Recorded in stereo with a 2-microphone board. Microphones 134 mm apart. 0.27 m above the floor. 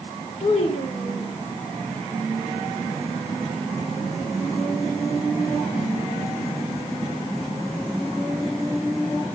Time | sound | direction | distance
0.4 | a child speaking | 50° left (ahead or behind) | 6.5 m